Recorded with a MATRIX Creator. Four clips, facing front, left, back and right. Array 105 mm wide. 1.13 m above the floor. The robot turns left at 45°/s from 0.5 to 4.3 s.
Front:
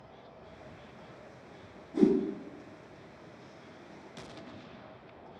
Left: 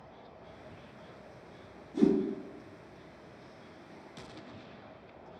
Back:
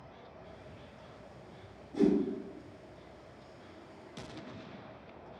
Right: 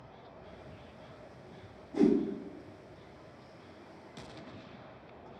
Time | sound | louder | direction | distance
1.9 | a whoosh | even, front 3 dB | 65° right | 2 m